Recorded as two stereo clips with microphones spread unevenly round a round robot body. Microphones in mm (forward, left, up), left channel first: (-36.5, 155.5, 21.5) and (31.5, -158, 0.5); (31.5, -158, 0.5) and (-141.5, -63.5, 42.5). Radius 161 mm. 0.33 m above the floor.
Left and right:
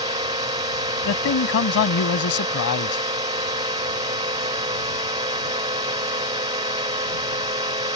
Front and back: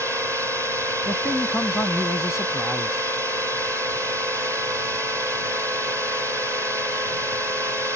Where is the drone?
125° right.